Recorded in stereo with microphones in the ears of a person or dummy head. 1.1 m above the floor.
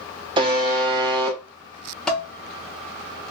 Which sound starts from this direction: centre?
Dishes clattering, at 2.1 s.